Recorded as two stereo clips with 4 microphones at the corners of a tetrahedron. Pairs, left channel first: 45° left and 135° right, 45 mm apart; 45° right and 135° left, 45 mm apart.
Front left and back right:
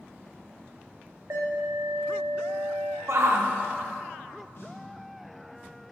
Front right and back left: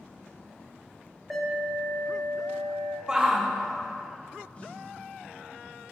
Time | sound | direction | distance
1.3 | an alarm | 135° right | 2 m
3.1 | a shout | 150° right | 1.5 m
4.5 | a snare drum | 15° left | 1.7 m